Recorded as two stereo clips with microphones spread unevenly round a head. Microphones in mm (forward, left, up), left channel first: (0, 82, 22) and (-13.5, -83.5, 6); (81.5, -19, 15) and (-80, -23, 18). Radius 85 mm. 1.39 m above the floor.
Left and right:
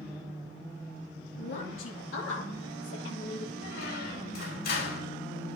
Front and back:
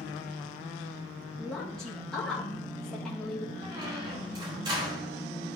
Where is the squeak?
115° left, 2.5 m.